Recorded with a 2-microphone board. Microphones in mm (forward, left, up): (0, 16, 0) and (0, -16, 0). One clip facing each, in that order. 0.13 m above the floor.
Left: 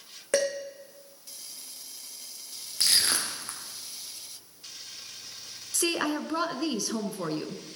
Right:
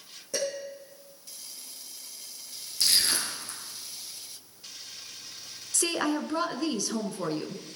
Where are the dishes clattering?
75° left (ahead or behind), 6 m.